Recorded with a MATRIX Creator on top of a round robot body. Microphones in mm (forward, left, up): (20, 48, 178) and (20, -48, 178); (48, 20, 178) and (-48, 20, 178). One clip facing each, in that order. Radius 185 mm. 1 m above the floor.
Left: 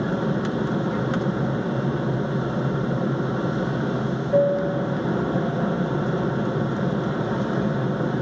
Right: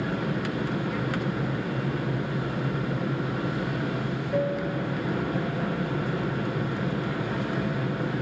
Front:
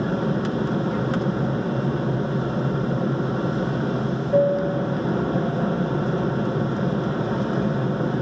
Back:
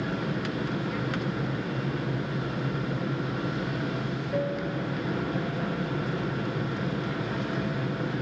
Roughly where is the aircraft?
Ahead left.